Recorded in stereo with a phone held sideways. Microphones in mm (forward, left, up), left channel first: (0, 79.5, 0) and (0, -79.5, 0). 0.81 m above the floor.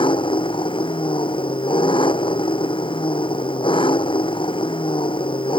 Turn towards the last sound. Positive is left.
turn(degrees=30)  # may be behind; listen again after turning